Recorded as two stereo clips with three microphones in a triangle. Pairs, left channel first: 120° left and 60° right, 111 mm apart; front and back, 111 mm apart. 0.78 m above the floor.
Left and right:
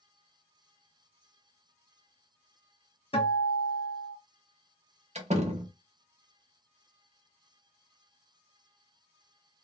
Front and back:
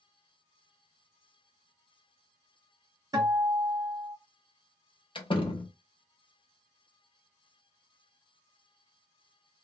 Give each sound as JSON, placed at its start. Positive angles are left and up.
{"t": 3.1, "sound": "a guitar", "azimuth_deg": 135, "distance_m": 1.2}
{"t": 5.2, "sound": "a door slam", "azimuth_deg": -45, "distance_m": 0.7}